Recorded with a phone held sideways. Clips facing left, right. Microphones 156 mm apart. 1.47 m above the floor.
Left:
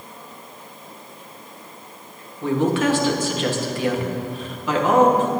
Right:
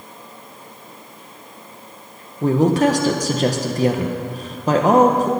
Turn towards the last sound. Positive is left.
turn(degrees=-40)  # may be behind; listen again after turning